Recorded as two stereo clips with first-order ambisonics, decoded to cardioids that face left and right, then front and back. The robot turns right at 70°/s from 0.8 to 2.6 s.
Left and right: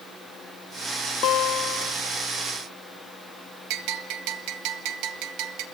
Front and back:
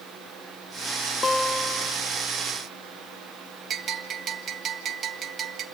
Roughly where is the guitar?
Left.